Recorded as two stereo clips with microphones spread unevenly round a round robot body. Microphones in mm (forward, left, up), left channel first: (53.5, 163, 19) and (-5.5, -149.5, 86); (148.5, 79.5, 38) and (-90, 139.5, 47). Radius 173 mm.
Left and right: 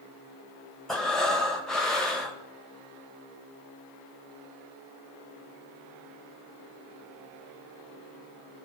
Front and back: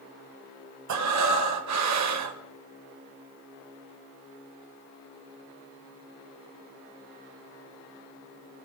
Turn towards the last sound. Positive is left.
turn(degrees=165)